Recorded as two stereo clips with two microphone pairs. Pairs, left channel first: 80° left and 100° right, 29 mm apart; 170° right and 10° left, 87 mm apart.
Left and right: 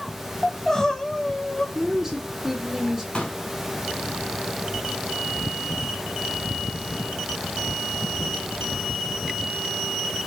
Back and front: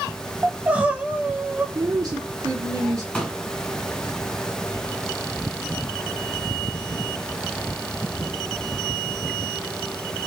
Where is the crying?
50° left, 0.8 m.